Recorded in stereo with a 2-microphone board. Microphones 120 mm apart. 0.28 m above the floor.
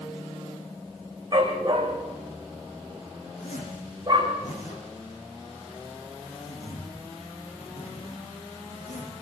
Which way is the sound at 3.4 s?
80° left.